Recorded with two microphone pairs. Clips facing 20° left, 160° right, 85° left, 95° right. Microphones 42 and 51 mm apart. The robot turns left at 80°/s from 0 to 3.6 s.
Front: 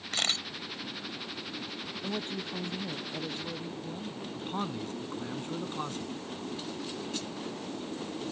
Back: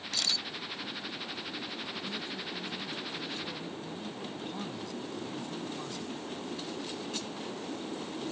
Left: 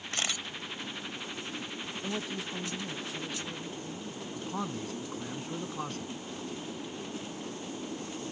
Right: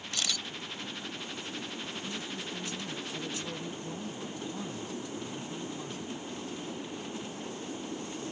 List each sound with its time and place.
0.1 s a camera shutter: 50° left; by 0.5 s 20° left
2.0 s a woman speaking: 75° left; by 4.2 s 50° right
4.3 s a man speaking: 65° left